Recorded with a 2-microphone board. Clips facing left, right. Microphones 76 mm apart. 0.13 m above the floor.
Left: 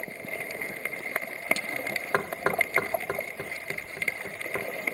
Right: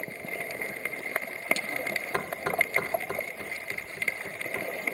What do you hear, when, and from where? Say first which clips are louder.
2.1 s knocking: left 3 dB; 50° left (ahead or behind), 1.5 m